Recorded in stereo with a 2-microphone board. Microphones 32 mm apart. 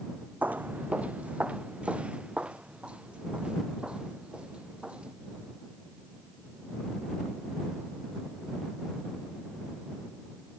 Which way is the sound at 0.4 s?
60° right (ahead or behind).